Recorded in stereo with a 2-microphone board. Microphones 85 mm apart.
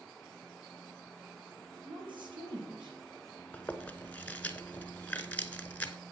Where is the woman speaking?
70° right (ahead or behind), 4.5 m; by 3.0 s 65° right (ahead or behind), 3.5 m.